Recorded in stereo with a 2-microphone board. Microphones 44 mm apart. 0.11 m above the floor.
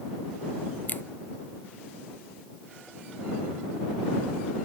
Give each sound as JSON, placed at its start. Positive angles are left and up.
{"t": 0.9, "sound": "a finger snap", "side_deg": 45}